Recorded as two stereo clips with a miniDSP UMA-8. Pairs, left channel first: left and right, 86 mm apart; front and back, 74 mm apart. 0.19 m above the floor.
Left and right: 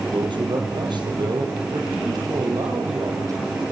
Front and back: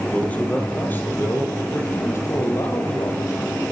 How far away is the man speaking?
About 5.5 m.